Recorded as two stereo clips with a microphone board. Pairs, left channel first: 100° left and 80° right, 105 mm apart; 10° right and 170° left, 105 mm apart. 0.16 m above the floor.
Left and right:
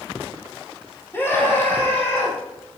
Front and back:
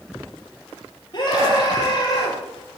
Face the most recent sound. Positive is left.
turn(degrees=35)